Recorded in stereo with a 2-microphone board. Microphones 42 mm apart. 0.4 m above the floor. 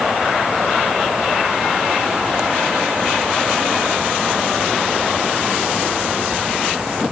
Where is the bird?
I don't hear a bird.